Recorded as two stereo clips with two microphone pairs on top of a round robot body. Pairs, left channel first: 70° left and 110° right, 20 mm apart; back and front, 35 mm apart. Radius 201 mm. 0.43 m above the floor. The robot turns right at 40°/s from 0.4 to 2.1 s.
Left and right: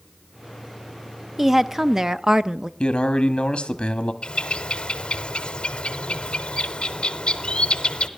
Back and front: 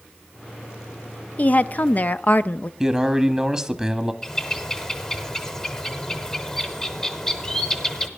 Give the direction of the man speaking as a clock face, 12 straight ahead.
10 o'clock.